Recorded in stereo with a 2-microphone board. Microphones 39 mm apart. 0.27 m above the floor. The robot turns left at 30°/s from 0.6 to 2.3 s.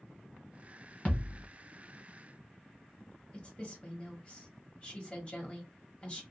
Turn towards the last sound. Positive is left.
turn(degrees=30)  # may be behind; listen again after turning